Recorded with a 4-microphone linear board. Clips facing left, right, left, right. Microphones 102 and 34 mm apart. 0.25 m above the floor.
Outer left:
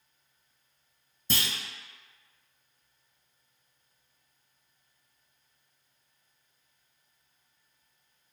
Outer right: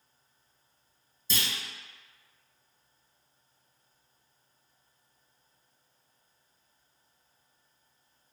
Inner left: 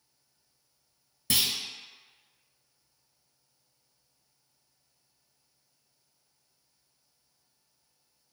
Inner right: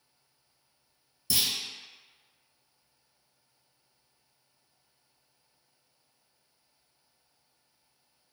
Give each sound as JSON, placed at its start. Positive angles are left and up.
{"t": 1.3, "sound": "a clunk", "side_deg": 60, "distance_m": 0.7}